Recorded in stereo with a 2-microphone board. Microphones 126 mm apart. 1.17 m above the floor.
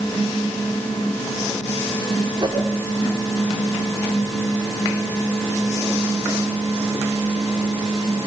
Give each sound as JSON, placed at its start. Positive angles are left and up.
{"t": 2.4, "sound": "a whoosh", "side_deg": -40, "distance_m": 4.0}